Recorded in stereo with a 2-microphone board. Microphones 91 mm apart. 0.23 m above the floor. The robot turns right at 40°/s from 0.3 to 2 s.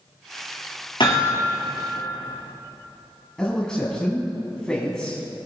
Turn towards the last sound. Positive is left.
turn(degrees=5)  # may be behind; listen again after turning